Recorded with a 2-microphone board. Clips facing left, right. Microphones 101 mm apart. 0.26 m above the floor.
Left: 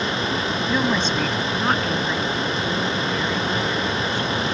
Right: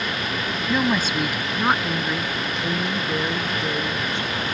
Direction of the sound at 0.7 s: 5° right (ahead or behind).